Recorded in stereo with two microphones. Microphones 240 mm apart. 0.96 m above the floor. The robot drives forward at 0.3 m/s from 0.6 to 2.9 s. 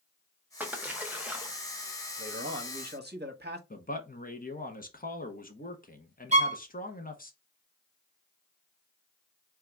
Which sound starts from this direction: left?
A man speaking, at 3.7 s.